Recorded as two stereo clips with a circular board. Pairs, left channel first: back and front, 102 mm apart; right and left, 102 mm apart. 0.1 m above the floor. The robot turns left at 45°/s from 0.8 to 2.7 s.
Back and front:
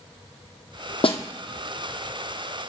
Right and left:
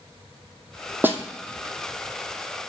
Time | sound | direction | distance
1.0 | a snare drum | 160° left | 0.8 m